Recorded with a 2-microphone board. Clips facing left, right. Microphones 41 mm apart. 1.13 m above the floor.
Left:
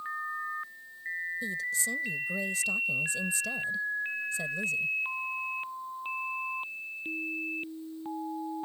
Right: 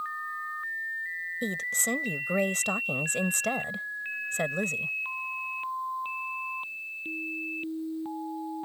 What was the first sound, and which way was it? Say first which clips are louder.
A woman speaking: right 5 dB; 65° right (ahead or behind).